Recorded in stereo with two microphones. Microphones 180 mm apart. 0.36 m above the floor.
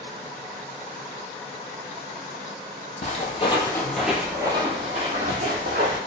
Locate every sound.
3.0 s footsteps: 45° left (ahead or behind), 0.8 m; by 6.0 s 60° right (ahead or behind), 1.2 m